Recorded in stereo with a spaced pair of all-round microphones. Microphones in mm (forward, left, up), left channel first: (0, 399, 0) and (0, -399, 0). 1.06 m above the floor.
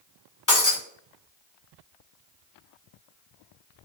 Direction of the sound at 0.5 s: 25° left (ahead or behind).